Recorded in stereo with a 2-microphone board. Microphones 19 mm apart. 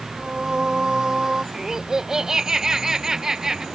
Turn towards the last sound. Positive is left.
turn(degrees=-35)  # may be behind; listen again after turning